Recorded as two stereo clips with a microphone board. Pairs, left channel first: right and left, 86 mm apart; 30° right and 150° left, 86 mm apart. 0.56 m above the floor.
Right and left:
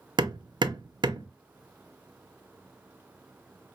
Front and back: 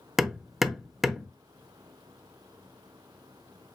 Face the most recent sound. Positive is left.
turn(degrees=65)